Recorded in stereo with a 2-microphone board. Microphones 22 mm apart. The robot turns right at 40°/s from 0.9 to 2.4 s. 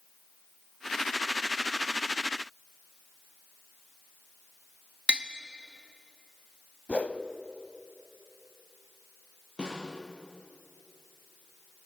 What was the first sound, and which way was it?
Tapping, 55° right (ahead or behind).